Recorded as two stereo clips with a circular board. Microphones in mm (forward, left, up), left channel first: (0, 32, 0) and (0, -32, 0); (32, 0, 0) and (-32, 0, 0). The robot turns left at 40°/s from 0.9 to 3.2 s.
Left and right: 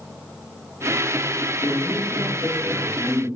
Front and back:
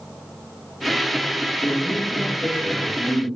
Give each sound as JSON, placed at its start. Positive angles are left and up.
{"t": 1.6, "sound": "a man speaking", "azimuth_deg": 70, "distance_m": 3.5}